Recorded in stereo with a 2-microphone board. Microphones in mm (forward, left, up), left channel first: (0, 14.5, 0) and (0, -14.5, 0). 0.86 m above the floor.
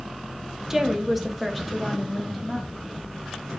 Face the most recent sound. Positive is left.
turn(degrees=5)  # may be behind; listen again after turning